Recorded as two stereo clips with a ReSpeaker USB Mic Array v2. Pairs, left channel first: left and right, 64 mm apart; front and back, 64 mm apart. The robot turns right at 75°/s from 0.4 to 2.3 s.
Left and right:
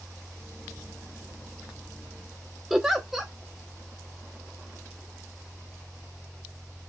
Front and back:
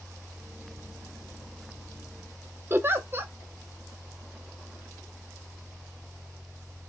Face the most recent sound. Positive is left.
turn(degrees=-175)